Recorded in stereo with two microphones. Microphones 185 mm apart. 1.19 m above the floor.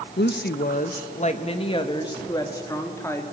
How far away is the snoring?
No snoring in this recording.